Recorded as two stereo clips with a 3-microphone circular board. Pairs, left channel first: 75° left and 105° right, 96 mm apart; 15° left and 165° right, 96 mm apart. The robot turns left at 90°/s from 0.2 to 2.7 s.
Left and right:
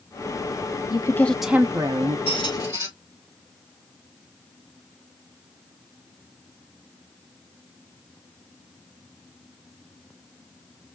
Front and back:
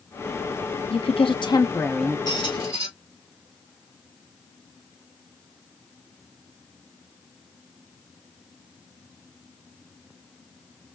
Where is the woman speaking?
30° left, 0.8 m; by 2.2 s 85° right, 0.8 m.